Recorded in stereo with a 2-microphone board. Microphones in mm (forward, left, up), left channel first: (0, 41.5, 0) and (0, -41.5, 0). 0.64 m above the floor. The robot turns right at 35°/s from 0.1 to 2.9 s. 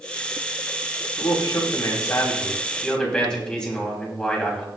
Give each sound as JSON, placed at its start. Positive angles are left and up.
{"t": 1.2, "sound": "a man speaking", "azimuth_deg": 110, "distance_m": 4.5}